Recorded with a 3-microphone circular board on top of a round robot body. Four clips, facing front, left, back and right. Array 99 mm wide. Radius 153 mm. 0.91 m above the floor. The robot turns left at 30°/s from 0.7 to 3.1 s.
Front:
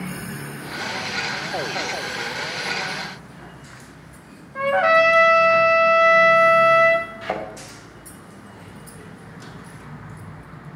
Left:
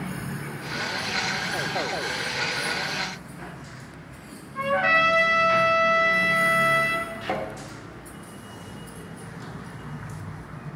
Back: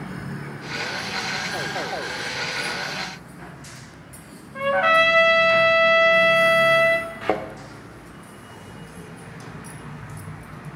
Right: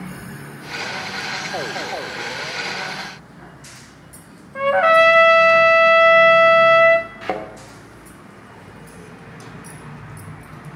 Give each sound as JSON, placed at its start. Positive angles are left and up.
{"t": 4.5, "sound": "a trumpet", "azimuth_deg": -85, "distance_m": 1.7}
{"t": 7.2, "sound": "a thud", "azimuth_deg": -160, "distance_m": 1.1}